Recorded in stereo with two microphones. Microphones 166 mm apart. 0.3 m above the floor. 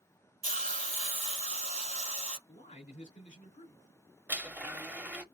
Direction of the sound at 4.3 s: 10° right (ahead or behind).